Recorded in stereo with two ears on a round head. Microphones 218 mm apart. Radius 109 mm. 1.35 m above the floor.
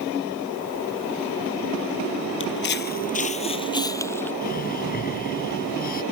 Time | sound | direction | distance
2.4 | footsteps | 55° left (ahead or behind) | ?
4.4 | breathing | 40° left (ahead or behind) | ?